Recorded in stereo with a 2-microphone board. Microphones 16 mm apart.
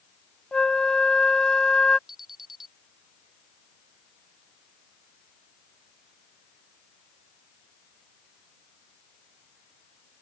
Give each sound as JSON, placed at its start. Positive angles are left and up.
{"t": 0.5, "sound": "a flute", "side_deg": 75}
{"t": 2.1, "sound": "an alarm", "side_deg": -20}